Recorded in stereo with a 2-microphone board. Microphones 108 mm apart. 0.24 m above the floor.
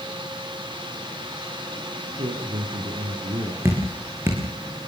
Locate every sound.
2.2 s a man speaking: 75° right (ahead or behind), 6.5 m
3.6 s dripping: 25° right (ahead or behind), 6.5 m